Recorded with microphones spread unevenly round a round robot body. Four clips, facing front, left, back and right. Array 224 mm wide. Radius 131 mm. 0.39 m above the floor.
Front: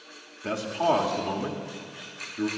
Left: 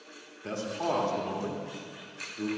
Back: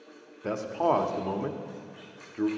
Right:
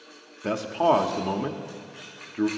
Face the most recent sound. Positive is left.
turn(degrees=-135)